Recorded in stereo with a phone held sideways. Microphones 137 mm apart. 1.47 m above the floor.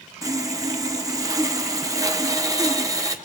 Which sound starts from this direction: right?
Sawing, at 0.2 s.